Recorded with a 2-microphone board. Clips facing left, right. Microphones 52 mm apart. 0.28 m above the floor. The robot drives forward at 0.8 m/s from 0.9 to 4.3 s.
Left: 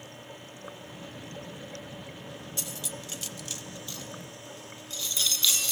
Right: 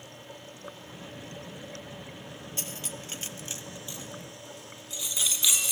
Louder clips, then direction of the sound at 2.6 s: Right 1 dB; 35° right (ahead or behind).